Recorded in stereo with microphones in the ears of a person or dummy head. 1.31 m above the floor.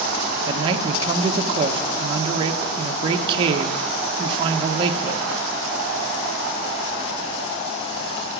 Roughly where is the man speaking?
Right.